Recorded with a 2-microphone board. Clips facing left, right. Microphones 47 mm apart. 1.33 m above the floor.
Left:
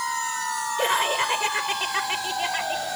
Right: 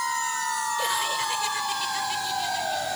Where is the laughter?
40° left (ahead or behind); by 2.9 s 60° left (ahead or behind).